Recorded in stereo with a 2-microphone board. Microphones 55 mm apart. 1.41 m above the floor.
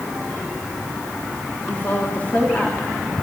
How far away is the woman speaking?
About 3 m.